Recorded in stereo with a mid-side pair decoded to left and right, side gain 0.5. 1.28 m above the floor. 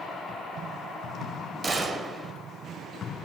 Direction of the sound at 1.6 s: 30° right.